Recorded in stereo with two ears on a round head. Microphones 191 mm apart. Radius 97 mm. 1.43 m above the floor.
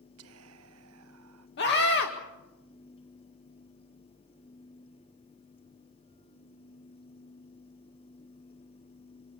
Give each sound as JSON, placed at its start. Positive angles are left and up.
{"t": 0.2, "sound": "whispering", "side_deg": -75, "distance_m": 1.1}
{"t": 1.6, "sound": "a scream", "side_deg": 55, "distance_m": 1.9}